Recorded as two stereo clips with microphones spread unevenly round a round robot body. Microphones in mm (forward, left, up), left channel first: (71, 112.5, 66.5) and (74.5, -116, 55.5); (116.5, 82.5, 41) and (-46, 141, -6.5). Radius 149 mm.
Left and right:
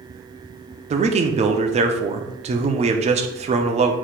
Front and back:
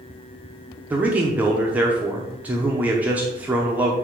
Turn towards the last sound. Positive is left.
turn(degrees=-135)